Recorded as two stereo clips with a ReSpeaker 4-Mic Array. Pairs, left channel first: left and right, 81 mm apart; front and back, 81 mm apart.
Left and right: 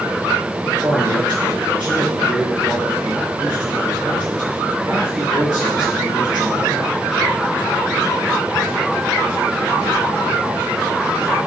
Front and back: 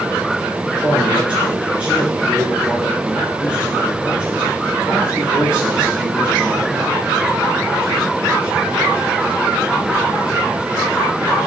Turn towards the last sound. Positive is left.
turn(degrees=-105)